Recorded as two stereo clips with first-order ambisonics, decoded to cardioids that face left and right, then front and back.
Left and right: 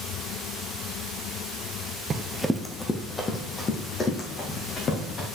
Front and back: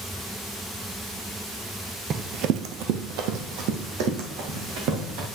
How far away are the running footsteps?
About 0.6 m.